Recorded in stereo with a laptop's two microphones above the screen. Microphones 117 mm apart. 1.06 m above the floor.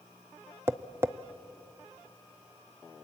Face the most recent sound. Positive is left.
turn(degrees=-20)  # may be behind; listen again after turning